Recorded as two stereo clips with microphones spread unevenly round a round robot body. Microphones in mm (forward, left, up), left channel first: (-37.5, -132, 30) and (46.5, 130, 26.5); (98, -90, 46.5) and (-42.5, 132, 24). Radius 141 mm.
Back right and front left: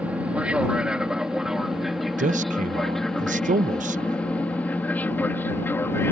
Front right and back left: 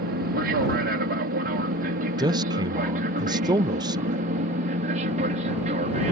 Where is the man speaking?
80° left.